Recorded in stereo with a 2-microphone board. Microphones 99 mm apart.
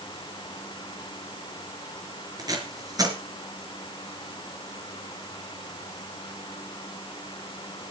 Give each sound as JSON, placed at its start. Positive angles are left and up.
{"t": 2.4, "sound": "tape being pulled", "side_deg": -40, "distance_m": 4.0}